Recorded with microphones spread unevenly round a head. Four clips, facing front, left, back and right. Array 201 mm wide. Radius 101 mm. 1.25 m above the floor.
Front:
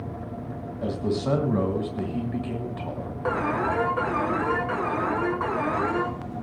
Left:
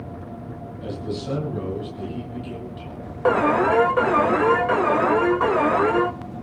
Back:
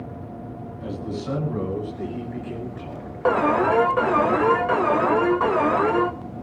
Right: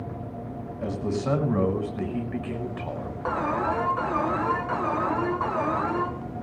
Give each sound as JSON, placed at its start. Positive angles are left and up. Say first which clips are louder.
{"t": 0.8, "sound": "a man speaking", "louder": "right 2 dB, front 4 dB", "azimuth_deg": -35, "distance_m": 6.5}
{"t": 3.2, "sound": "an alarm", "louder": "left 8 dB, back 7 dB", "azimuth_deg": 120, "distance_m": 2.5}